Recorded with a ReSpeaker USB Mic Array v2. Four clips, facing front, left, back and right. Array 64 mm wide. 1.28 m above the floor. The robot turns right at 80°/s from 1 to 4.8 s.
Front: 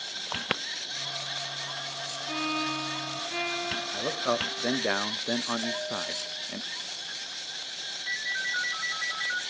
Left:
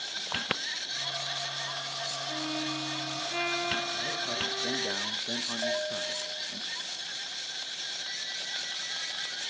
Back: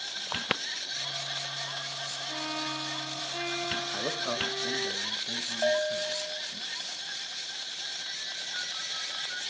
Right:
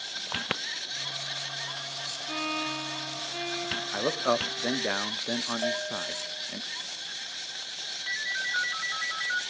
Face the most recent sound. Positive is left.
turn(degrees=-55)